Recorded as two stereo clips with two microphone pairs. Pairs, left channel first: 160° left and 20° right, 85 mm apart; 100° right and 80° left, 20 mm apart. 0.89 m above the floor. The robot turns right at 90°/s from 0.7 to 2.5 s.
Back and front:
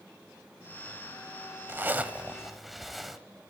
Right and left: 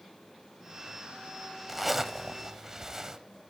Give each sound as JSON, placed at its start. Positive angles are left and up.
{"t": 1.7, "sound": "a zipper", "azimuth_deg": -5, "distance_m": 0.7}